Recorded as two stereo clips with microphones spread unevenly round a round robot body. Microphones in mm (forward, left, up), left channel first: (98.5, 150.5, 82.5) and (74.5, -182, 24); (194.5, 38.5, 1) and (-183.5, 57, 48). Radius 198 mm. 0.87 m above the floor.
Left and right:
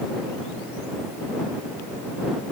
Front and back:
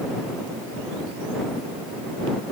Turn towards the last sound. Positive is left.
No sound to turn to.